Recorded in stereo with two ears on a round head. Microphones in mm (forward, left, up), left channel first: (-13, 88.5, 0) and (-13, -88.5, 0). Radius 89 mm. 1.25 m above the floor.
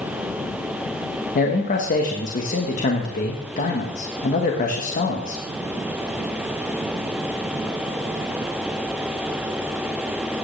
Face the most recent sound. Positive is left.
turn(degrees=45)  # may be behind; listen again after turning